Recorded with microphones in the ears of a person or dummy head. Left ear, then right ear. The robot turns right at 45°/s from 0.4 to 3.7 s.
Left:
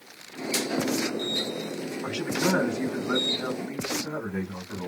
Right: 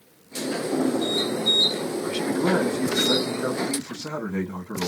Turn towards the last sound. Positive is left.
turn(degrees=-115)